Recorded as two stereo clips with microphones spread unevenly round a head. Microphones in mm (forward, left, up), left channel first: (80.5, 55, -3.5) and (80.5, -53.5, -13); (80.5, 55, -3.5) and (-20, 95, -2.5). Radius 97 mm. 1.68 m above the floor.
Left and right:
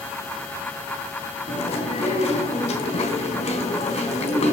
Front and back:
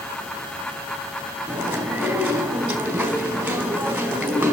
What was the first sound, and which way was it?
Chewing, 90° left.